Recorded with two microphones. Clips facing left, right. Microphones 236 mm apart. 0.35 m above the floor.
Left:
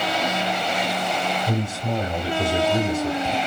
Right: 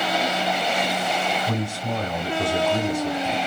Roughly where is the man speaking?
Left.